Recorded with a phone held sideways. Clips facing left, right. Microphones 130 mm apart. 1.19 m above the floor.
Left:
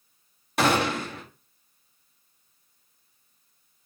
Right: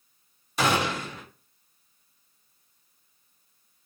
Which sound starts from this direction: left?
A gunshot, at 0.6 s.